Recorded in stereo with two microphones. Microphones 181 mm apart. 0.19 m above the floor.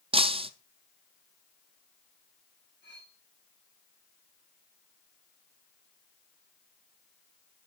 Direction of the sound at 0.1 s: 30° right (ahead or behind).